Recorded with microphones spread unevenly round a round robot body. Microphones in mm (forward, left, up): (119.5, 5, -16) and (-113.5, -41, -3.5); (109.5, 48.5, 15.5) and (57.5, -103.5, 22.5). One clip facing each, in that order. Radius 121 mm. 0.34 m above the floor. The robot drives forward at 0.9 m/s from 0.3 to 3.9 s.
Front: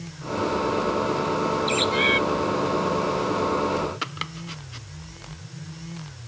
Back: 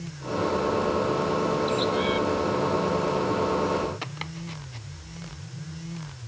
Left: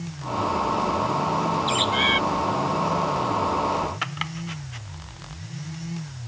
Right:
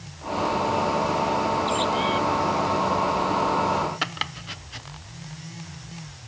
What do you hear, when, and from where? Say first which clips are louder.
1.7 s a bird: front 1 dB, right 1 dB; 60° left; by 2.2 s 65° left
4.0 s chopping: front 1 dB, left 1 dB; 60° right